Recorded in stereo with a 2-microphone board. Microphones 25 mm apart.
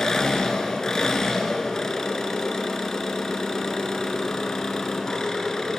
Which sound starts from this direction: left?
An engine running, at 0.0 s.